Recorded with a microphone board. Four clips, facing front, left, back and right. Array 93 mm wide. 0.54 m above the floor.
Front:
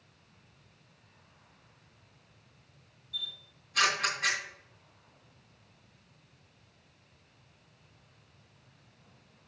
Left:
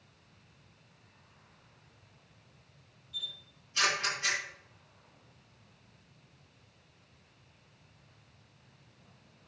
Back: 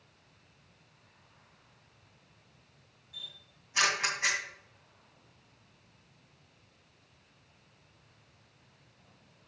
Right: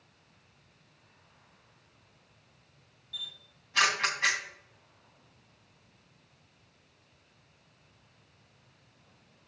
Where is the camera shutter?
110° right, 1.9 m.